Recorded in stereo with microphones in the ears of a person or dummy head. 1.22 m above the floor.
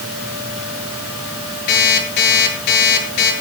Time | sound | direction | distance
1.7 | an alarm clock | 60° left (ahead or behind) | 9 m